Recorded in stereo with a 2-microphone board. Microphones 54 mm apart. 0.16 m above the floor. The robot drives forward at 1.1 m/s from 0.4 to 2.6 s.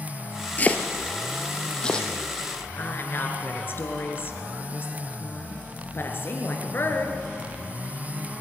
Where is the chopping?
30° left (ahead or behind), 1.4 m; by 2.1 s 15° left (ahead or behind), 3 m.